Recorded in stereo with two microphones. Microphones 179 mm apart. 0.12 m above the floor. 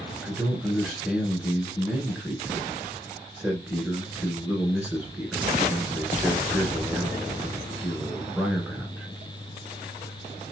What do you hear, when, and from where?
0.2 s a man speaking: 10° right (ahead or behind), 1.2 m